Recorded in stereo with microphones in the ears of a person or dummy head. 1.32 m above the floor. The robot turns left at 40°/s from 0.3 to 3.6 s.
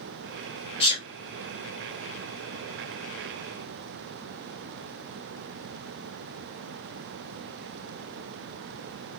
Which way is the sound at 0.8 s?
35° left (ahead or behind).